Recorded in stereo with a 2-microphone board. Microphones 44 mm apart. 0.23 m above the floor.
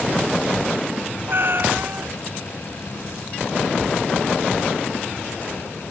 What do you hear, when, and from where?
1.3 s a cat meowing: 55° right (ahead or behind)